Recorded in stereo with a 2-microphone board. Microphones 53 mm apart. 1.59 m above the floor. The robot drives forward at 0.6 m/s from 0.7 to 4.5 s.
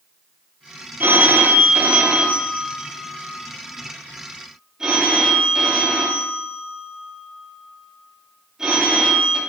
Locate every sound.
1.0 s a phone ringing: 40° right (ahead or behind), 0.7 m; by 9.4 s 10° right (ahead or behind), 2.5 m